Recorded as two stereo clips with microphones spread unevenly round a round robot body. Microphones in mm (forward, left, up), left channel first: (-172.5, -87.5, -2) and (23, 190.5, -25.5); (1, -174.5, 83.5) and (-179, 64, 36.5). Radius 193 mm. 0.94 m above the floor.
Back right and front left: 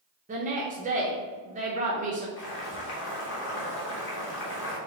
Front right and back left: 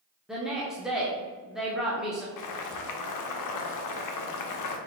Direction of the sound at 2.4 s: 65° right.